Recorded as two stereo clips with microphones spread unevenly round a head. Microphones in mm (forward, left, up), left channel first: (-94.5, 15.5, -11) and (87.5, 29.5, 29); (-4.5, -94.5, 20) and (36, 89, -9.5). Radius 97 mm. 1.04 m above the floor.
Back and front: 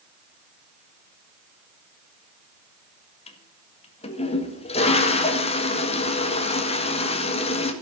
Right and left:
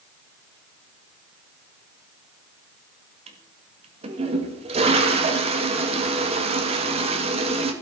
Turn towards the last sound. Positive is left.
turn(degrees=135)